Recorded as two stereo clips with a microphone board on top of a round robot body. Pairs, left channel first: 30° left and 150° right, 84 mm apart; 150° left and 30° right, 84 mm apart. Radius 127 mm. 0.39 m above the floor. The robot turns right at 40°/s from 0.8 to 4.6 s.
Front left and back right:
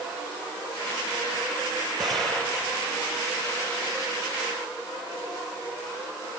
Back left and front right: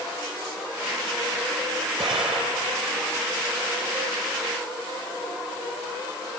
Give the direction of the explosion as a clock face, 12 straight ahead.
2 o'clock.